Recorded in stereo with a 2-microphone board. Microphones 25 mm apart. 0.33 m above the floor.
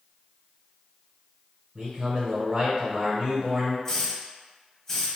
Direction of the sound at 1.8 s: 25° right (ahead or behind).